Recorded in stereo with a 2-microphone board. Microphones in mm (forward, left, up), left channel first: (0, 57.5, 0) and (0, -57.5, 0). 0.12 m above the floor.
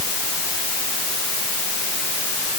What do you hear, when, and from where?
Only background noise.